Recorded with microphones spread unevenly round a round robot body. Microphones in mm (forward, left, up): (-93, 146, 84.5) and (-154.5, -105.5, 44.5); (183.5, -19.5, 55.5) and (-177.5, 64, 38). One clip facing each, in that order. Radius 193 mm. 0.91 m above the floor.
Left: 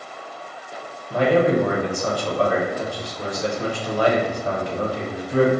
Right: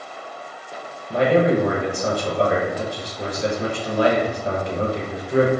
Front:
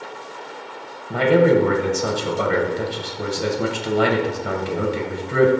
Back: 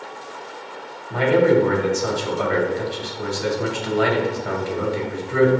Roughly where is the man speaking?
Ahead right.